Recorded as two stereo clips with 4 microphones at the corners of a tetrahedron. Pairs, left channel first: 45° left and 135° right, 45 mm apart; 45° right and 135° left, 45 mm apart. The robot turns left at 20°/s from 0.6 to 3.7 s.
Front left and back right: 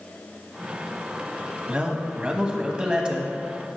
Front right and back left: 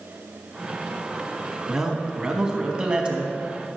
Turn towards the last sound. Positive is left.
turn(degrees=165)